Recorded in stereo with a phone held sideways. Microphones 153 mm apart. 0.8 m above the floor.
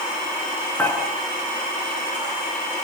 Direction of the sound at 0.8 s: 10° left (ahead or behind).